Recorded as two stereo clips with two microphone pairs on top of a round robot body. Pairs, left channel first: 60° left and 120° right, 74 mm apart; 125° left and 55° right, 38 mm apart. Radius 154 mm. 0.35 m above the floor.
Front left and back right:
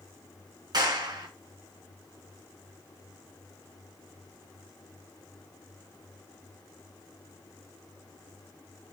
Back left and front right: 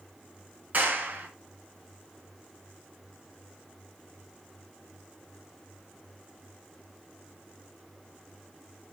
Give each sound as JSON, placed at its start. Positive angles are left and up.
{"t": 0.7, "sound": "a clap", "azimuth_deg": -100, "distance_m": 4.5}